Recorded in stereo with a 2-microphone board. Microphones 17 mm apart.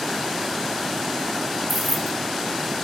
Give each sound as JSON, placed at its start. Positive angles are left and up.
{"t": 1.7, "sound": "keys jangling", "side_deg": -15}